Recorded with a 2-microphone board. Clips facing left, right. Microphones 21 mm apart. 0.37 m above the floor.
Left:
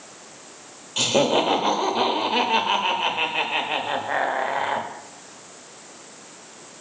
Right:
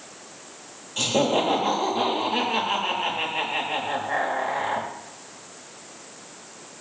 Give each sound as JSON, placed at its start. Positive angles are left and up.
{"t": 1.0, "sound": "laughter", "side_deg": 35, "distance_m": 1.0}